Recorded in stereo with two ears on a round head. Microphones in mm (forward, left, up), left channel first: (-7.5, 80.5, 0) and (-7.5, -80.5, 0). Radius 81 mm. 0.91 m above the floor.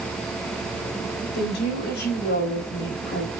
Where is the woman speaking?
65° left (ahead or behind), 4.5 m.